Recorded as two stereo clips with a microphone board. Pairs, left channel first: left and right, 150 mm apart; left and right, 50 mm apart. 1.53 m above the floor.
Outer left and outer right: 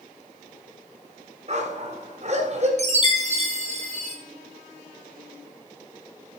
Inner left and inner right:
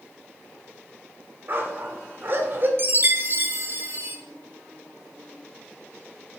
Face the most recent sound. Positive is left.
turn(degrees=-45)  # may be behind; listen again after turning